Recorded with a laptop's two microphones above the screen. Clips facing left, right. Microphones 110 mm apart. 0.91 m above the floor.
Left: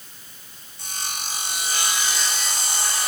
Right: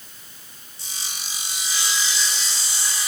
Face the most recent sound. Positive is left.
turn(degrees=60)  # may be behind; listen again after turning